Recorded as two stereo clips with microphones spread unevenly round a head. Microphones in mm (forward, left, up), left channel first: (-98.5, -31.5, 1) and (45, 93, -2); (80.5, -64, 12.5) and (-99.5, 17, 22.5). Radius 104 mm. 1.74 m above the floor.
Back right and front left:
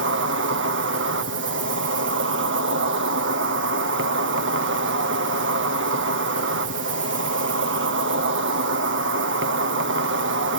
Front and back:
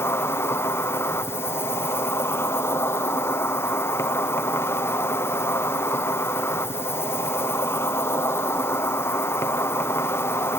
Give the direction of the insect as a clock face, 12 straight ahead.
10 o'clock.